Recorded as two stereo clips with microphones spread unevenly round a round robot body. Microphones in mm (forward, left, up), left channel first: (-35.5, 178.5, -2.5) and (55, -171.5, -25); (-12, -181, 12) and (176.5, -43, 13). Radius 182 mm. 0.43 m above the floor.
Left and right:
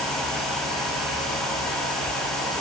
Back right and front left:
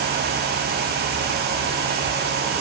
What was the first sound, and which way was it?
Only background noise.